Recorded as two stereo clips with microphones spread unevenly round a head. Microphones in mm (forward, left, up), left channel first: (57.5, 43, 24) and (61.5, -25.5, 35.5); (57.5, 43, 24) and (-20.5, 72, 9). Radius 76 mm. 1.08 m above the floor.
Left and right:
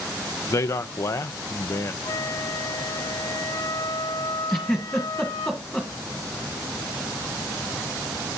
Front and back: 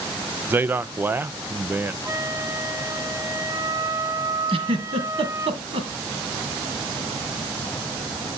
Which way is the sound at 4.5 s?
Straight behind.